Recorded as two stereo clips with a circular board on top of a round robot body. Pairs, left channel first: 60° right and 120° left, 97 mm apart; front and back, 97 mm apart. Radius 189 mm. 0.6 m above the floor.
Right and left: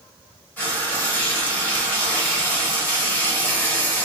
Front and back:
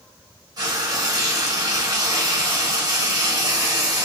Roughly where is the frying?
Behind right.